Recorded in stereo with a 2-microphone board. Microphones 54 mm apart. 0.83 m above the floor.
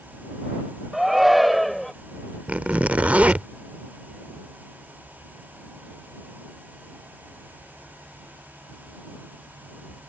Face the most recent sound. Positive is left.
turn(degrees=-25)  # may be behind; listen again after turning